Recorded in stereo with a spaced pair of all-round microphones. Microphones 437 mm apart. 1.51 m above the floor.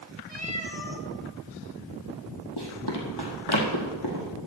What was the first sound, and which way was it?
A cat meowing, 65° left (ahead or behind).